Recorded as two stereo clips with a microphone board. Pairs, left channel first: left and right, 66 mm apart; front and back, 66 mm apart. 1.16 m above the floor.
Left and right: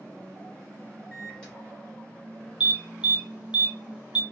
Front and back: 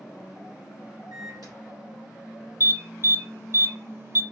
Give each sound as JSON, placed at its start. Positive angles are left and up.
{"t": 1.1, "sound": "a microwave", "azimuth_deg": 165, "distance_m": 3.0}
{"t": 2.6, "sound": "an alarm", "azimuth_deg": -155, "distance_m": 1.1}